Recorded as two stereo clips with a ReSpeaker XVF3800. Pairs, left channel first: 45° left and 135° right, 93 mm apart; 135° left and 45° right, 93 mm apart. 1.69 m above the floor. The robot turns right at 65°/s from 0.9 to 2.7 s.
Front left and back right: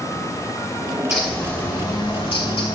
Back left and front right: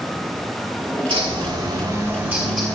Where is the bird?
55° right, 2.5 m; by 2.8 s 50° left, 2.5 m.